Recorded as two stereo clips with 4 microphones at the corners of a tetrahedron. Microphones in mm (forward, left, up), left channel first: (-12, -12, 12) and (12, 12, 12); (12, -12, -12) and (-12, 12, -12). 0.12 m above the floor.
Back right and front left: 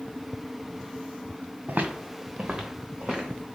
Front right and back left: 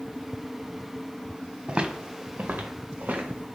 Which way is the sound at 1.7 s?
80° left.